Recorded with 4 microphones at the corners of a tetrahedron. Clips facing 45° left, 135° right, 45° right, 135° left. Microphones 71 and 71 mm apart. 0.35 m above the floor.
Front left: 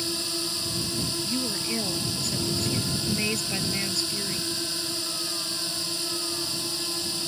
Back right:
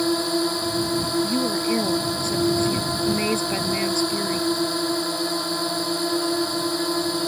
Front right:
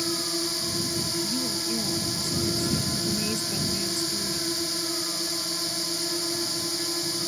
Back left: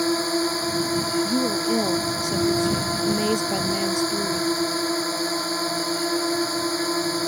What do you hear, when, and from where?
0.0 s a drone: straight behind
1.2 s a woman speaking: 160° left